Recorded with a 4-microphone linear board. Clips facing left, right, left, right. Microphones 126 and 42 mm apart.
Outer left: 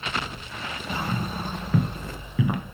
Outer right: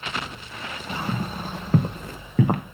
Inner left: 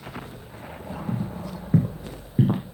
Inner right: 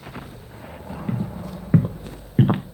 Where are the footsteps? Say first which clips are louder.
Even, inner right 3 dB; 40° right (ahead or behind), 2.5 m; by 2.6 s 55° right (ahead or behind), 1.6 m.